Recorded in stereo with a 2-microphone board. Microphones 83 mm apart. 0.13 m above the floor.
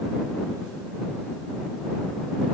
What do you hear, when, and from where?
Only background noise.